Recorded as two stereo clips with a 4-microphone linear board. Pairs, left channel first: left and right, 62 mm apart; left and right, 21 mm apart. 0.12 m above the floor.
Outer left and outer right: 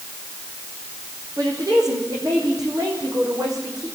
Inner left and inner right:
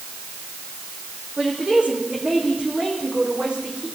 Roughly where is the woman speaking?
Right.